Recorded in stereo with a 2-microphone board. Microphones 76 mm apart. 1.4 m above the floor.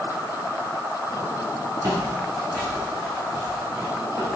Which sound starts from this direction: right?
Footsteps, at 1.8 s.